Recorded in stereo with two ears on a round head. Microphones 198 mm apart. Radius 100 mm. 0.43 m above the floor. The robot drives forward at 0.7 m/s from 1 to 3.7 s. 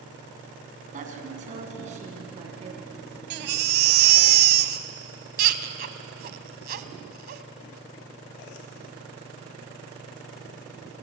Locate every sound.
0.9 s a woman speaking: 35° right (ahead or behind), 4.5 m; by 3.2 s 30° right (ahead or behind), 6 m
3.3 s a baby crying: 50° right (ahead or behind), 1.2 m; by 7.4 s 45° right (ahead or behind), 1.4 m